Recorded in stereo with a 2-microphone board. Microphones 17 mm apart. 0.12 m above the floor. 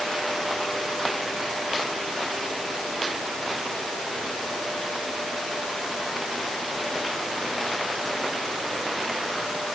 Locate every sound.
Only background noise.